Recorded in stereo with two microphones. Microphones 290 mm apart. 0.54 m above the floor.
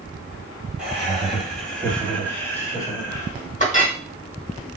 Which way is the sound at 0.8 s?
5° right (ahead or behind).